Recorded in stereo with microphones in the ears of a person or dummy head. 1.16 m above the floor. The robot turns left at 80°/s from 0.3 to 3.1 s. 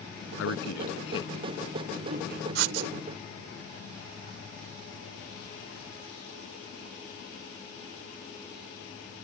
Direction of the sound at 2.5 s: 65° right (ahead or behind).